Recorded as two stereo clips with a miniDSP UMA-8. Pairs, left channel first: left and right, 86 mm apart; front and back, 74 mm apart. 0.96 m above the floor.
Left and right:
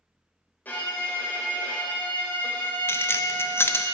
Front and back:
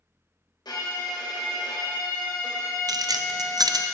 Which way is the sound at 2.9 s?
150° left.